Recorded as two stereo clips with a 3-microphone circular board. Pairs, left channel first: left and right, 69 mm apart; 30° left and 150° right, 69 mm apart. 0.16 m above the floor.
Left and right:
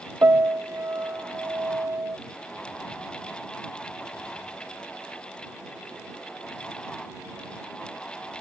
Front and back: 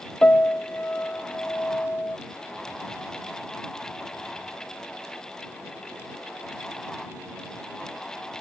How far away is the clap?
No clap in this recording.